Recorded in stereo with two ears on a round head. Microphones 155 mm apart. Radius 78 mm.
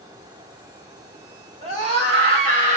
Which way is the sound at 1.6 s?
35° right (ahead or behind).